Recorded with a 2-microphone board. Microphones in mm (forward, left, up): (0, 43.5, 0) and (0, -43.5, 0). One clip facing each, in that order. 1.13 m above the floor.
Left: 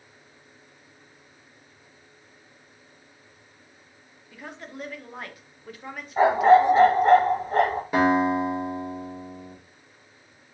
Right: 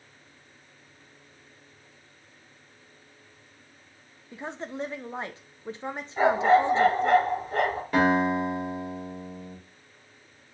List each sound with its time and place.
4.3 s a woman speaking: 25° right (ahead or behind), 0.5 m
6.2 s a dog barking: 40° left (ahead or behind), 1.4 m
7.9 s a guitar: 10° left (ahead or behind), 2 m